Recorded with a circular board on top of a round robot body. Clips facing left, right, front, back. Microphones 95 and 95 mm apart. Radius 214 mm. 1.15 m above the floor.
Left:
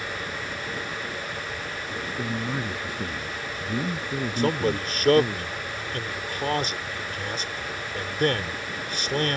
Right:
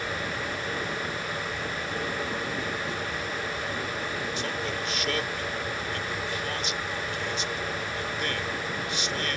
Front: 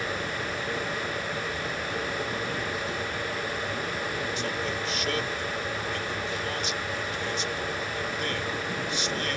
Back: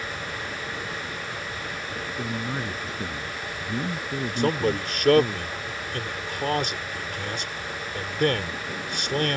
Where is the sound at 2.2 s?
130° left.